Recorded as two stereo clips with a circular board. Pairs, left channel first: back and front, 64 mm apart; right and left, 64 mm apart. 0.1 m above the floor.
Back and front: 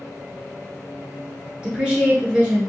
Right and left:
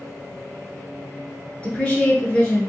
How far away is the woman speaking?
About 1.1 m.